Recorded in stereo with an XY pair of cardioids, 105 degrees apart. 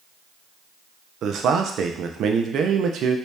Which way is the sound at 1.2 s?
65° right.